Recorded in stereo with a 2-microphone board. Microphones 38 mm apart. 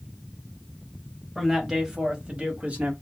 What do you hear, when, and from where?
1.4 s a man speaking: 10° right (ahead or behind), 1.4 m; by 2.9 s 45° right (ahead or behind), 1.3 m